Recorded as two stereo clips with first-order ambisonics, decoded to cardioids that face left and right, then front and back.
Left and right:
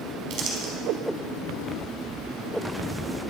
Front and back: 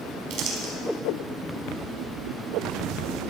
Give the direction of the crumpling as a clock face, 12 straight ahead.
5 o'clock.